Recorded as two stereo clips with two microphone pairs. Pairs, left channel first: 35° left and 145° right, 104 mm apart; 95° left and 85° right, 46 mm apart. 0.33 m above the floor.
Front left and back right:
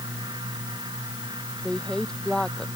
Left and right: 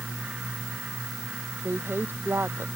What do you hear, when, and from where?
1.6 s a woman speaking: 50° right